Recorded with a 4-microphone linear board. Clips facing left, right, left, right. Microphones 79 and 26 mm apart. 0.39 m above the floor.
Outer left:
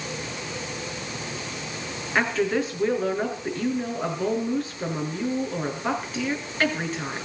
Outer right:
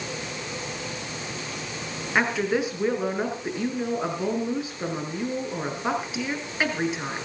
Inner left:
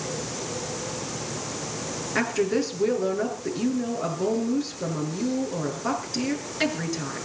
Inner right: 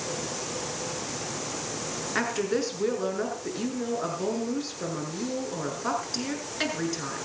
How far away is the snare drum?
I don't hear a snare drum.